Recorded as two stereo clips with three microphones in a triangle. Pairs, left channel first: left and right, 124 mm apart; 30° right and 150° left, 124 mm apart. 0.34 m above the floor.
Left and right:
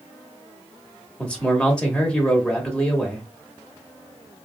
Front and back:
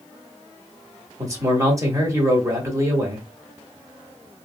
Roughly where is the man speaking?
Behind.